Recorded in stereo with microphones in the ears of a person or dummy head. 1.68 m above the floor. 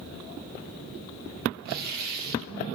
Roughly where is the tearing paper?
Right.